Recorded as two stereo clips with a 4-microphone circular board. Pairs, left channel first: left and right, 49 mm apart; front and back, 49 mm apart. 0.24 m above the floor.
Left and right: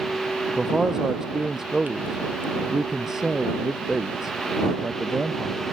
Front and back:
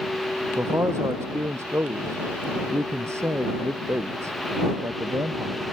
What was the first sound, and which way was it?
A man speaking, 170° right.